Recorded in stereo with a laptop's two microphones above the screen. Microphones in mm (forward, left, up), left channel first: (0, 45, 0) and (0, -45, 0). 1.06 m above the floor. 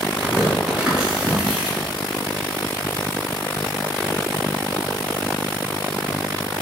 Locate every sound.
0.2 s tearing paper: 10° right (ahead or behind), 0.8 m